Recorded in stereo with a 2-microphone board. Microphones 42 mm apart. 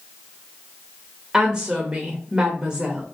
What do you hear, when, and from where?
1.3 s a woman speaking: 20° right (ahead or behind), 0.9 m